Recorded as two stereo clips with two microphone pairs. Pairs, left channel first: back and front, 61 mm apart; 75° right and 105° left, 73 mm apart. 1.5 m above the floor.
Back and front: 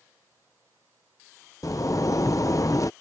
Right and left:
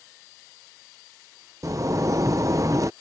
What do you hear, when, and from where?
1.6 s a zipper: 150° left